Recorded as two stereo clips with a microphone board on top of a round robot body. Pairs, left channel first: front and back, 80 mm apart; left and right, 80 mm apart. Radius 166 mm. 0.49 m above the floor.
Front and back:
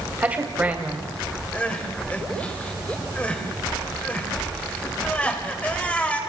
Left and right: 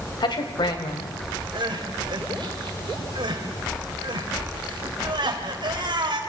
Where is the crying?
70° right, 3 m.